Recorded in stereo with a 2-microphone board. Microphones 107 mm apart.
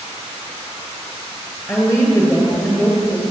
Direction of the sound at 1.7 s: 25° left (ahead or behind).